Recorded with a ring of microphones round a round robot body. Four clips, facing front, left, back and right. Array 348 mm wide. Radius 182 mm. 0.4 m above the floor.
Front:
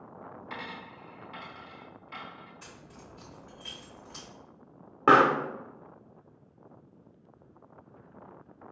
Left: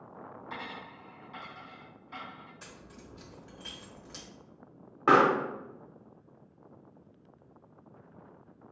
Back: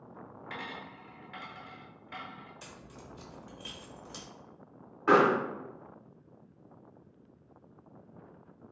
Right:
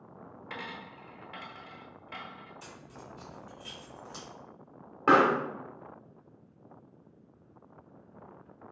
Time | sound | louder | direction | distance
0.5 | a dropped coin | right 1 dB, even | 110° right | 1.2 m
2.6 | keys jangling | right 2 dB, even | 145° left | 1.2 m
5.1 | a pop | even, front 3 dB | 10° right | 0.9 m